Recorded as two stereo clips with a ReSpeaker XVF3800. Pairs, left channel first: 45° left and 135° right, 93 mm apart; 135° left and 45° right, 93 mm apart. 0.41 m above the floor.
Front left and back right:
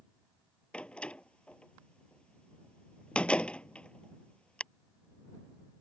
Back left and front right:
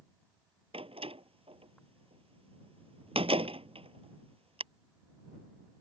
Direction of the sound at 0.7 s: 35° right.